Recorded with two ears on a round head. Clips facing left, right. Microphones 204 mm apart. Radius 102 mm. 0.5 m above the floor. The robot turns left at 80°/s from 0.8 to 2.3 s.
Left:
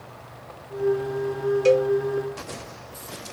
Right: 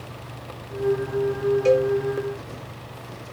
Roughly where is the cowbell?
Centre.